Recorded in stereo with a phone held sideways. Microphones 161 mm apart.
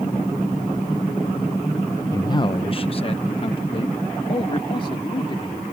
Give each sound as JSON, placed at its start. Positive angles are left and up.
{"t": 2.1, "sound": "a man speaking", "side_deg": 20}